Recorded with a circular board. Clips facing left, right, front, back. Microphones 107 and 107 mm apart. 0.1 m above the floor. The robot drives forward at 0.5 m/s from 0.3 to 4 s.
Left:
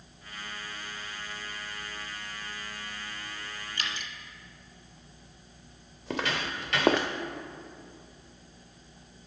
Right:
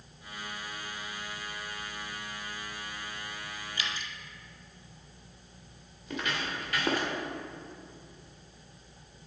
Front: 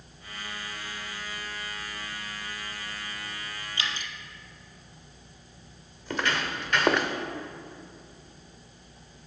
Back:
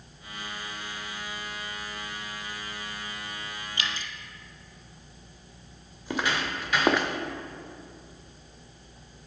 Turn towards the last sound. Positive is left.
turn(degrees=90)